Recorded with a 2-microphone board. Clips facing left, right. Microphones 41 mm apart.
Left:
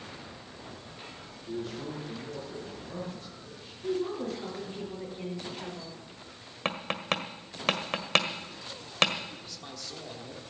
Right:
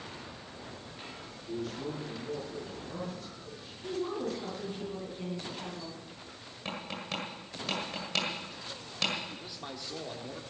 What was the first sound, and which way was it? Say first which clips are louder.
A man speaking: left 1 dB; 25° left (ahead or behind).